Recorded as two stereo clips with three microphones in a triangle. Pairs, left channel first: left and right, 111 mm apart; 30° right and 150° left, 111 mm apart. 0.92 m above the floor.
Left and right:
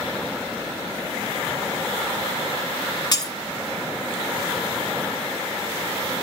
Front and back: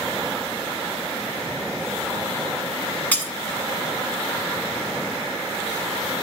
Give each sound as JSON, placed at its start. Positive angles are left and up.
{"t": 3.1, "sound": "breaking glass", "azimuth_deg": 45, "distance_m": 1.5}